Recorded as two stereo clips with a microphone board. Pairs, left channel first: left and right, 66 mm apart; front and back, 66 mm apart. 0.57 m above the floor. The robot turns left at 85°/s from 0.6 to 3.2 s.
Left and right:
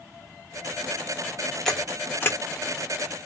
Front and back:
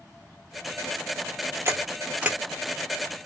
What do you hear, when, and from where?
1.6 s a camera shutter: 175° left, 1.2 m; by 2.4 s 110° left, 1.2 m